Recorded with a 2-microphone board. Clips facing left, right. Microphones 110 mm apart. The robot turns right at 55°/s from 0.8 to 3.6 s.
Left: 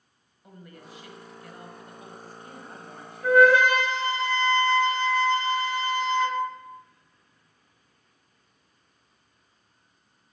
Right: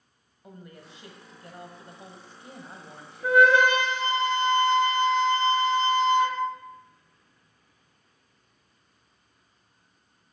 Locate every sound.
0.4 s a woman speaking: 130° right, 1.0 m; by 3.4 s 15° left, 1.0 m
3.2 s a flute: 20° right (ahead or behind), 1.1 m; by 6.4 s 25° right (ahead or behind), 1.1 m